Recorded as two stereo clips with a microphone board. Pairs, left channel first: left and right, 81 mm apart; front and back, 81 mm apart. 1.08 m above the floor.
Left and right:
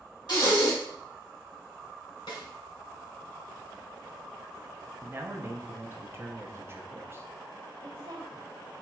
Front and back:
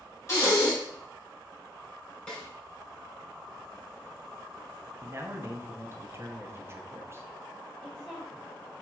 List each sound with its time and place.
0.3 s breathing: 55° left, 2.5 m
2.3 s a snare drum: 75° left, 1.8 m
5.0 s a man speaking: 135° right, 0.6 m
7.8 s a woman speaking: 80° right, 1.3 m